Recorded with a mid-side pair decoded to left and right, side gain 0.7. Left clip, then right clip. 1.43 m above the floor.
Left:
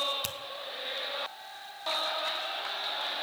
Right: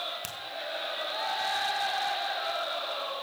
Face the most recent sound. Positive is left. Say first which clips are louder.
# left 3 dB
turn(degrees=15)